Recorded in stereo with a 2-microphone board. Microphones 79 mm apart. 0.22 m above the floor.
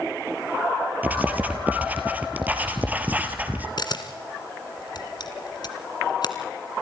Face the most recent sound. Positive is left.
turn(degrees=60)  # may be behind; listen again after turning